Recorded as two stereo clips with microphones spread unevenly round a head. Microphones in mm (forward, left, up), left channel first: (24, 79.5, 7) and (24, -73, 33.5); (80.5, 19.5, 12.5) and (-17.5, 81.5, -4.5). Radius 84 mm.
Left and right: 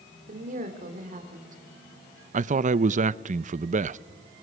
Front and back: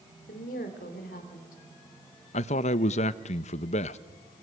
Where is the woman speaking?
50° right, 3 m.